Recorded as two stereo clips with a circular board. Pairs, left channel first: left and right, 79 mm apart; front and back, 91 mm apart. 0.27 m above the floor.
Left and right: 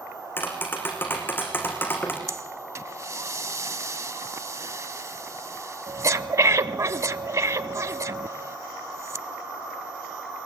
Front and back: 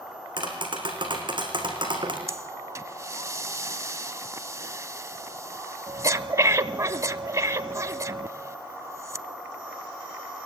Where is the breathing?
130° right, 0.7 m.